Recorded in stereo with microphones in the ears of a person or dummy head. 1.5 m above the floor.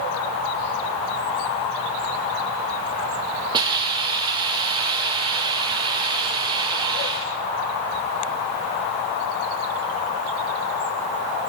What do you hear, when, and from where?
3.5 s a hiss: 25° right (ahead or behind), 1.0 m